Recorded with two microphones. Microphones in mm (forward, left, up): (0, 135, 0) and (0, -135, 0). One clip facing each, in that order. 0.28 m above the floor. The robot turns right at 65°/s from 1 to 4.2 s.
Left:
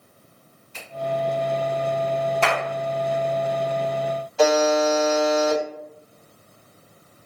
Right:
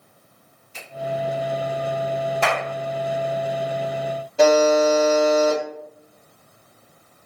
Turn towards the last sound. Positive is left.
turn(degrees=-45)  # may be behind; listen again after turning